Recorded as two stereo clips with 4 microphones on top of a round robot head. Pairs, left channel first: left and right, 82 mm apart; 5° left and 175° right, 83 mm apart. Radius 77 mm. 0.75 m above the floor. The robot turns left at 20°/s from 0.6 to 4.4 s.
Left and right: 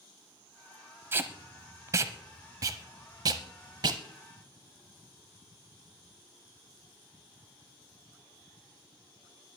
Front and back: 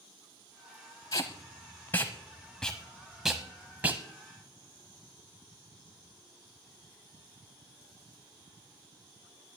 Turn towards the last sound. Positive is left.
turn(degrees=-110)